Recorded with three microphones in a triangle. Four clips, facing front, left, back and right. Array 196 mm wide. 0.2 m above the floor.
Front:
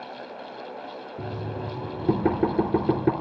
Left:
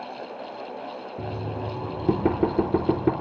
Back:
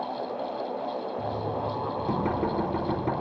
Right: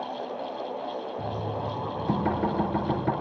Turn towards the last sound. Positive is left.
turn(degrees=55)